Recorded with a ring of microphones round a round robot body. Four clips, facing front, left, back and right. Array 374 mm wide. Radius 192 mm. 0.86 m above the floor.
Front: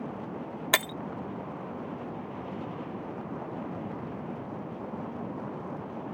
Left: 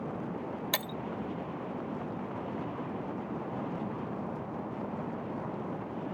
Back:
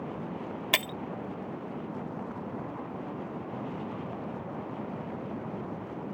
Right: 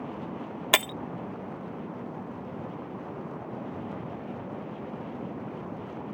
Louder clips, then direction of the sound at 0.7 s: Right 13 dB, front 4 dB; 70° right.